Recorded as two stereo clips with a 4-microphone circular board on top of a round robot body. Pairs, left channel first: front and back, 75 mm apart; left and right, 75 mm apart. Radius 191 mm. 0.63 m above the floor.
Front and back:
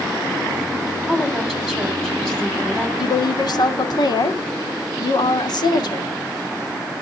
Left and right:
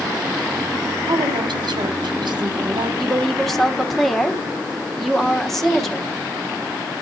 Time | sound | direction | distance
1.1 | a woman speaking | 85° right | 3.5 m
3.0 | a woman speaking | 5° left | 1.9 m